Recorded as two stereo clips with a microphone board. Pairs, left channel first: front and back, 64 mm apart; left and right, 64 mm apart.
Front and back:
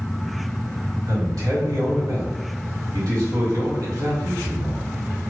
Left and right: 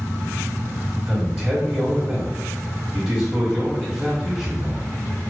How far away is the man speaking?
About 1.6 m.